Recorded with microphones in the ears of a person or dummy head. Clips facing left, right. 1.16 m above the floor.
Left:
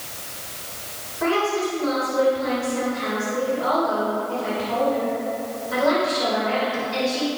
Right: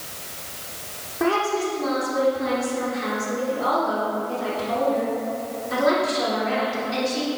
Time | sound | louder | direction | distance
1.2 | a woman speaking | even | 75° right (ahead or behind) | 4 m